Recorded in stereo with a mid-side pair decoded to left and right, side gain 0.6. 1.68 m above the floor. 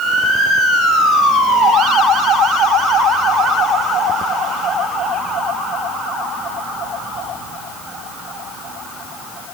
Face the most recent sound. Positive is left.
No sound to turn to.